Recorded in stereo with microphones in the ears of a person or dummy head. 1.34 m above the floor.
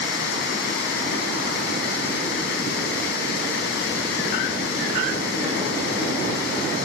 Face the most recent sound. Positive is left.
turn(degrees=65)  # may be behind; listen again after turning